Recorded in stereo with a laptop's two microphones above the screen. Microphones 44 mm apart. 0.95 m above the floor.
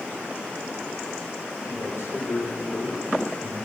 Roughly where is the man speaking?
Left.